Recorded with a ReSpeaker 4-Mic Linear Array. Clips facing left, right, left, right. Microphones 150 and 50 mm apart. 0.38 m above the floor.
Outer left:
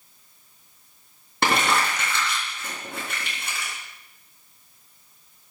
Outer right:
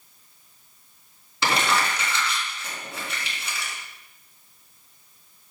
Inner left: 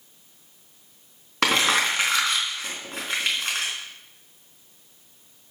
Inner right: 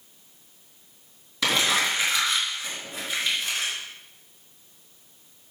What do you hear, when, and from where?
1.4 s crumpling: 55° left (ahead or behind), 4 m